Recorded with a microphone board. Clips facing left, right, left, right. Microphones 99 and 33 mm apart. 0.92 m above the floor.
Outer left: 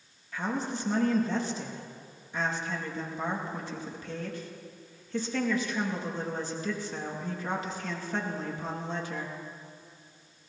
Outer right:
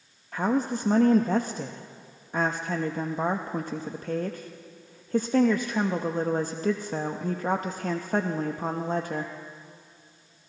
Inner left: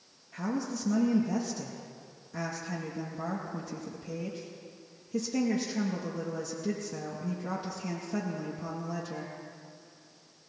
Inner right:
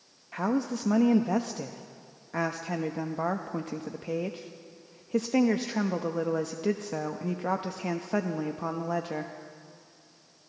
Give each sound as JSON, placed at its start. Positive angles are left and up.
{"t": 0.3, "sound": "a woman speaking", "side_deg": -45, "distance_m": 0.8}